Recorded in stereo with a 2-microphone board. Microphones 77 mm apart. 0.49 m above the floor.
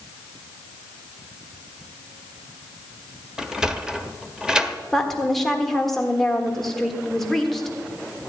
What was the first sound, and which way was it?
A sliding door, 10° right (ahead or behind).